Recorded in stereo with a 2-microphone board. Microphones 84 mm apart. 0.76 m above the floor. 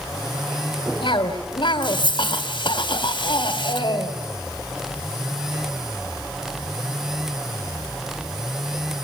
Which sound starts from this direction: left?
A cough, at 1.0 s.